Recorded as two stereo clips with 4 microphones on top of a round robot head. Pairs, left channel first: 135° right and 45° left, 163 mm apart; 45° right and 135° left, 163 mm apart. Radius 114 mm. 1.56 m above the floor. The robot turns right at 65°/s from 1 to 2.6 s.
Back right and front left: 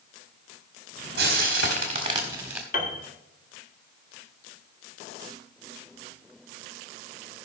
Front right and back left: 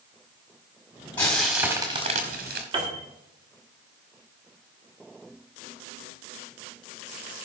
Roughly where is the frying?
Ahead left.